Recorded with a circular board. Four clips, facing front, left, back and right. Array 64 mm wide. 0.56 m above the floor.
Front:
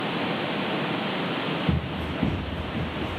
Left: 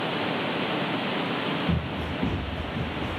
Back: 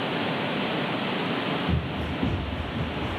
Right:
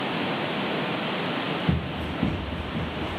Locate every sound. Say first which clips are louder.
1.7 s running footsteps: right 1 dB, front 1 dB; 45° right, 2.5 m; by 3.2 s 55° right, 3.5 m